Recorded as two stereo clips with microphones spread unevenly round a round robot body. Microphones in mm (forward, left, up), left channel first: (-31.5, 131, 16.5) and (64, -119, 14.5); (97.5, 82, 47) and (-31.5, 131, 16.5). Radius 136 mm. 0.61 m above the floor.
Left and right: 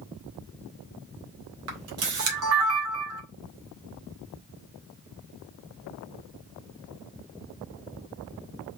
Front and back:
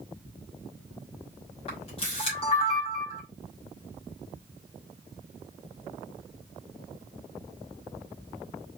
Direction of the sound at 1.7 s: 80° right.